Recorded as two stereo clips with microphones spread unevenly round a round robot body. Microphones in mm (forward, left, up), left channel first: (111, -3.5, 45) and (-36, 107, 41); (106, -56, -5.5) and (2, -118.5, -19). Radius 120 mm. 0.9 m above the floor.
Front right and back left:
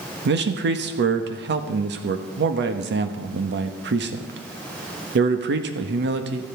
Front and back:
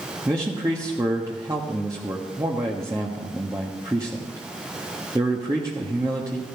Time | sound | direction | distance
0.2 | a man speaking | 145° left | 1.2 m